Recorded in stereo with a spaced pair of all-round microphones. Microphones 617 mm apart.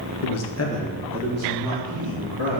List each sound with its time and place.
0.2 s a man speaking: 65° left (ahead or behind), 0.7 m; by 2.6 s 40° right (ahead or behind), 2.5 m